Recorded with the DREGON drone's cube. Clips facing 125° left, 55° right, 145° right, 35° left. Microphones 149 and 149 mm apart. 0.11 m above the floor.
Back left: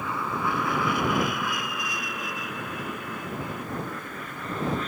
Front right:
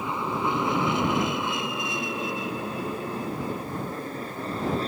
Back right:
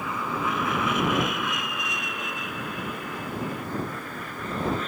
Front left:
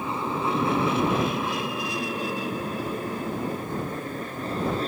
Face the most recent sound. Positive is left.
turn(degrees=-10)